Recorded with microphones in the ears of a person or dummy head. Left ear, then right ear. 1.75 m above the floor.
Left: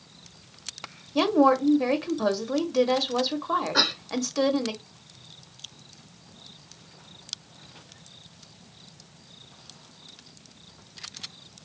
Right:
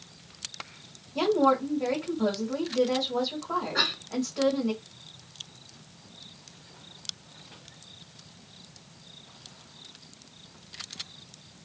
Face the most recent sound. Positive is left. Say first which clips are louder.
# left 3 dB
turn(degrees=75)  # may be behind; listen again after turning